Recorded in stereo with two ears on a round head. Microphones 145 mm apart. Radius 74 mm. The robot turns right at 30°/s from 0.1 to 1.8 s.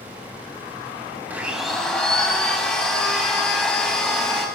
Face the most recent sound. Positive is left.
turn(degrees=0)  # may be behind; listen again after turning